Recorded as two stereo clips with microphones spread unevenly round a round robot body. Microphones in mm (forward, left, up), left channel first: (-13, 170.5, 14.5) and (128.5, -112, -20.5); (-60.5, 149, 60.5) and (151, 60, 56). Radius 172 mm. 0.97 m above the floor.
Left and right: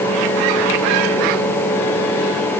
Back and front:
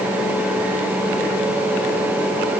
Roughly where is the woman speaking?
I don't hear a woman speaking.